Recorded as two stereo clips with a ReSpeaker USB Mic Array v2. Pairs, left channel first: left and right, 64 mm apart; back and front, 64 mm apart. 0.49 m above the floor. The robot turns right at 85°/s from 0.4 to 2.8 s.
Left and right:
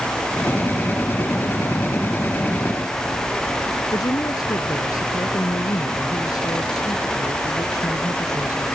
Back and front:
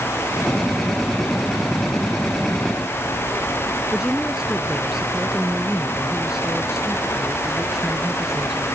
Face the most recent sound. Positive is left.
turn(degrees=80)